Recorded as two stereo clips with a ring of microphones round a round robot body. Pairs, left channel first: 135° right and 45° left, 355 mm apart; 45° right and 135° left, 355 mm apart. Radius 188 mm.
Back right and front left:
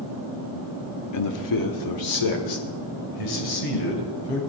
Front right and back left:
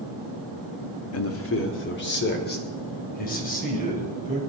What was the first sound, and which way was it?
A man speaking, 95° right.